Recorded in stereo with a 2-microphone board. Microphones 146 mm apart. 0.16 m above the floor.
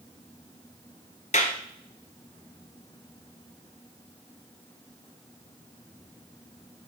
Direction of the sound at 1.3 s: 55° left (ahead or behind).